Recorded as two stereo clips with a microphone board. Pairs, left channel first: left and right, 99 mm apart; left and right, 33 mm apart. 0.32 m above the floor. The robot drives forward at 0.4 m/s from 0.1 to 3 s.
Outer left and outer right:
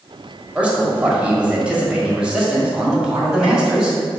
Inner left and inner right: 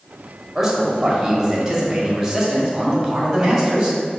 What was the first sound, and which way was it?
A man speaking, 15° right (ahead or behind).